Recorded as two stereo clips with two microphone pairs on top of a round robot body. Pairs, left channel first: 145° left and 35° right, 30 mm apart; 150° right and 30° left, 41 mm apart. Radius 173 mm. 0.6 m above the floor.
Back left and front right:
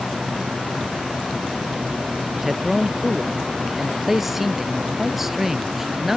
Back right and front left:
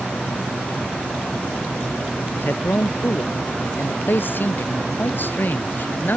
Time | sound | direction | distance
2.4 | a man speaking | 115° right | ?